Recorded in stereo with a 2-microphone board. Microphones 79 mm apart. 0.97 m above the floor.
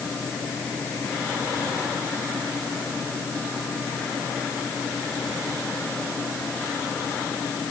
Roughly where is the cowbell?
No cowbell in this recording.